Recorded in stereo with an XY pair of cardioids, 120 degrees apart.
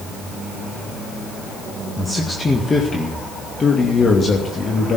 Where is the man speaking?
10° left, 1.9 m; by 5.0 s 45° left, 3 m.